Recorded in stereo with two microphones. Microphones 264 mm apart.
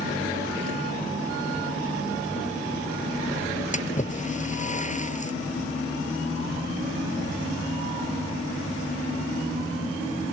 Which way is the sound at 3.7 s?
25° left (ahead or behind).